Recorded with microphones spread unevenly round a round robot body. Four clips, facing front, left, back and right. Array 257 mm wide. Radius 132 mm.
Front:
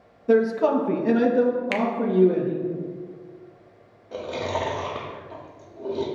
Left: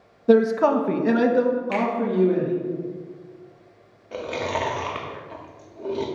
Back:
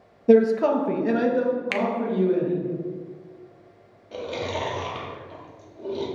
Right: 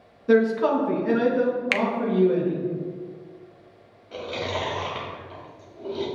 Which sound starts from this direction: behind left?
A man speaking, at 0.3 s.